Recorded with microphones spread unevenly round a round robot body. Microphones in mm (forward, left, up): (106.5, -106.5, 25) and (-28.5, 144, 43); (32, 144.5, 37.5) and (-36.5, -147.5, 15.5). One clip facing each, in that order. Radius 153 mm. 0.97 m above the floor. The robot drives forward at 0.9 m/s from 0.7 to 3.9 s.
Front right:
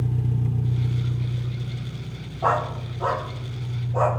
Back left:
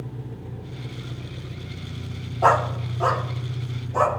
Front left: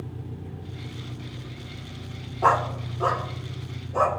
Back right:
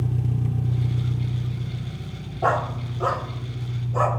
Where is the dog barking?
145° left, 0.7 m; by 4.1 s 170° left, 1.9 m.